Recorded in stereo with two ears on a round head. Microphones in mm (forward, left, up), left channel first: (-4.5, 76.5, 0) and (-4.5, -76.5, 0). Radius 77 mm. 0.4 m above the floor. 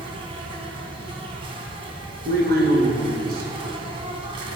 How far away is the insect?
About 2.0 m.